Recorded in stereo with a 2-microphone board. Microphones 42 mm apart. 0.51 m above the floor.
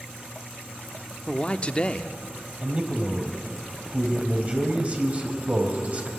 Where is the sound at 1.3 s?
30° left (ahead or behind), 0.7 m.